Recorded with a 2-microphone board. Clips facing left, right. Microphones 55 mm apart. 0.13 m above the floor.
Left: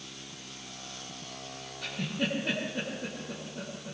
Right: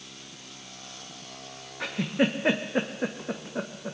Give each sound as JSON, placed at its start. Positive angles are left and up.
{"t": 1.8, "sound": "a giggle", "side_deg": -70, "distance_m": 2.5}